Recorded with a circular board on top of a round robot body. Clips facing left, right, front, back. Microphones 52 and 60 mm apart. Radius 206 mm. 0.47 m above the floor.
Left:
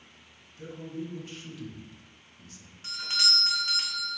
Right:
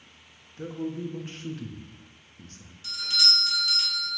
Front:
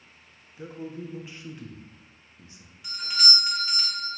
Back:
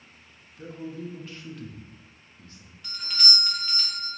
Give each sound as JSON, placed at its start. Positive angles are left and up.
{"t": 0.6, "sound": "a man speaking", "azimuth_deg": -65, "distance_m": 1.0}
{"t": 2.8, "sound": "a doorbell", "azimuth_deg": 70, "distance_m": 1.2}